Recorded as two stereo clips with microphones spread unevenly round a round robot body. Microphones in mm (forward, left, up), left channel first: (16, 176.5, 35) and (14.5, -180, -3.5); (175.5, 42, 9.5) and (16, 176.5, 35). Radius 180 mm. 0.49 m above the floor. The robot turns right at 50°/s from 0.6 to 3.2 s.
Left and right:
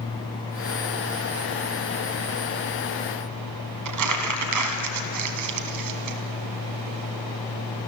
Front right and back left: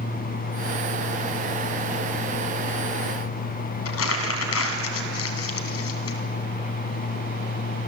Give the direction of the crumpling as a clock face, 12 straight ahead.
2 o'clock.